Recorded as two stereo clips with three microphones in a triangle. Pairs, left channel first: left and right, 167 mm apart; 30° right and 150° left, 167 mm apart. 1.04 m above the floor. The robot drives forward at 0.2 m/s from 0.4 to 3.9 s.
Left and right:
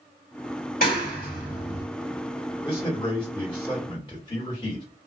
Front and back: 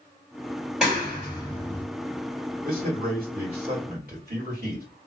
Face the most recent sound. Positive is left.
turn(degrees=150)